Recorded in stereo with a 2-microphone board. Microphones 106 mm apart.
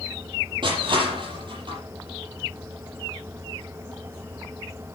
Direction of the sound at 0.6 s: 50° right (ahead or behind).